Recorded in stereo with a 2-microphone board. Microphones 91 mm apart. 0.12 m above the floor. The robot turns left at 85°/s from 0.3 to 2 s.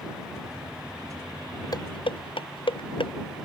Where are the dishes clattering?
45° left (ahead or behind); by 3.1 s 70° left (ahead or behind).